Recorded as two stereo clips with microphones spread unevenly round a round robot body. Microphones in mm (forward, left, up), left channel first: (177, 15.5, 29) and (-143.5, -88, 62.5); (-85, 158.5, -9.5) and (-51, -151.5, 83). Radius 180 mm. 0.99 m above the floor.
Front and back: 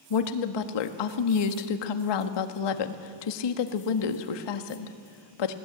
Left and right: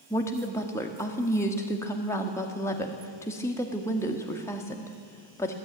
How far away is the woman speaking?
About 1.4 m.